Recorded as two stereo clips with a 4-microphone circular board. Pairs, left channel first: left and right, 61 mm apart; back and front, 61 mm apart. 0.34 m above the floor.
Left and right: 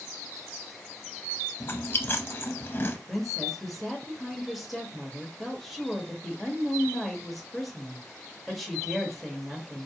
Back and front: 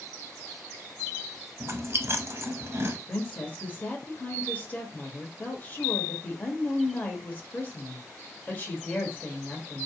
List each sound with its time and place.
1.6 s chewing: 40° left, 0.6 m
3.1 s a woman speaking: straight behind, 1.1 m